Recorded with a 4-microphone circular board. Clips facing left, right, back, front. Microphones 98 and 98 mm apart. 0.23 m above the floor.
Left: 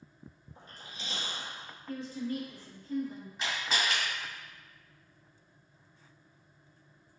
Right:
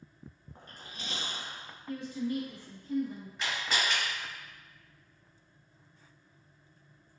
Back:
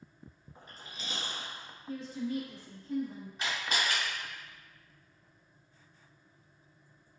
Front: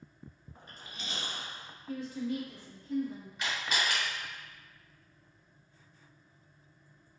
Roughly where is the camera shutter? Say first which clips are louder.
Even, even; behind left.